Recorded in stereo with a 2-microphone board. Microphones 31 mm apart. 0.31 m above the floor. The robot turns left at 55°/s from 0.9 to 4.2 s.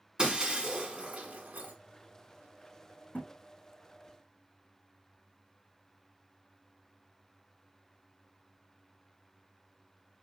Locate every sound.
0.2 s breaking glass: 25° right (ahead or behind), 1.4 m; by 1.7 s 65° right (ahead or behind), 1.4 m
3.1 s a thud: 75° left (ahead or behind), 3 m; by 3.3 s 65° left (ahead or behind), 3 m